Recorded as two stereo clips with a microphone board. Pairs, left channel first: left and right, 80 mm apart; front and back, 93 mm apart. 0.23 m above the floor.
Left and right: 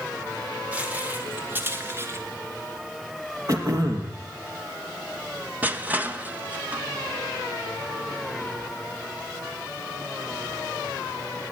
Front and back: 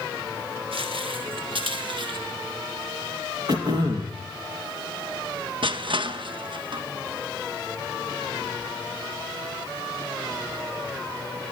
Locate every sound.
0.7 s footsteps: 165° right, 5 m; by 2.2 s 150° right, 3.5 m
3.5 s throat clearing: 135° right, 4.5 m
5.6 s crushing: 160° right, 1.7 m